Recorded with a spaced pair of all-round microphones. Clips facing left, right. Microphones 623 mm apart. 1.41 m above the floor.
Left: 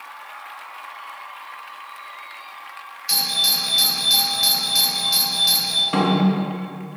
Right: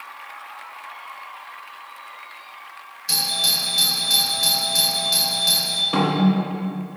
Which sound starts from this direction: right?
A doorbell, at 3.1 s.